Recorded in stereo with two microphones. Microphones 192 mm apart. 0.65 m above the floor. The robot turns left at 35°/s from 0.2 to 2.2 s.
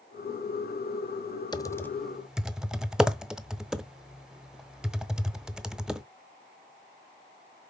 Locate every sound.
1.5 s typing on a keyboard: 20° left (ahead or behind), 0.7 m; by 6.0 s 5° right (ahead or behind), 0.7 m